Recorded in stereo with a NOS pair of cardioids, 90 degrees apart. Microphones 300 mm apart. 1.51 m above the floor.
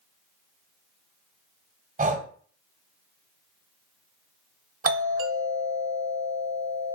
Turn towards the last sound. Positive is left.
turn(degrees=-30)